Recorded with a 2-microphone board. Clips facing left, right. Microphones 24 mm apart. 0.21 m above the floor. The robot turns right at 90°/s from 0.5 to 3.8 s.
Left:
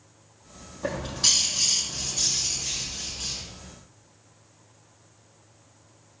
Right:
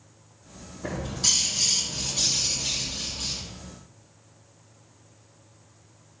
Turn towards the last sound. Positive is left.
turn(degrees=30)